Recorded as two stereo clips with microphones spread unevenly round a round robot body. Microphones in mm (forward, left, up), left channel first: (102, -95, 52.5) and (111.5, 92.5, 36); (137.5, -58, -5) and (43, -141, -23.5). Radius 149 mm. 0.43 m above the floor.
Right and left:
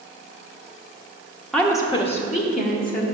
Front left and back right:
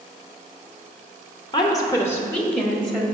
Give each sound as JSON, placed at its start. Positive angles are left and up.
{"t": 1.5, "sound": "a woman speaking", "azimuth_deg": 0, "distance_m": 0.8}